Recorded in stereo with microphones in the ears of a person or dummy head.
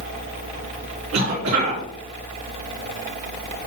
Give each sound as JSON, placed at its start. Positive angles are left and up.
{"t": 1.1, "sound": "a cough", "side_deg": -80, "distance_m": 3.0}